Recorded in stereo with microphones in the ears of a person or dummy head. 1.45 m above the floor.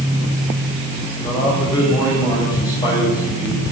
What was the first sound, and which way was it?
A man speaking, 25° left (ahead or behind).